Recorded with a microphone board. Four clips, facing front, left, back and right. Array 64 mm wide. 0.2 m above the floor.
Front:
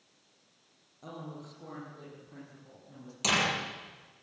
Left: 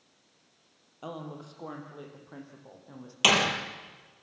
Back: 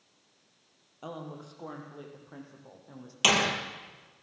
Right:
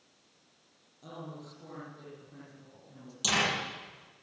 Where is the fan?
I don't hear a fan.